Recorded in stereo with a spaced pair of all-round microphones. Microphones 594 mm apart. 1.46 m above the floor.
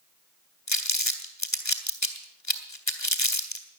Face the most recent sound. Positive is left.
turn(degrees=30)  # may be behind; listen again after turning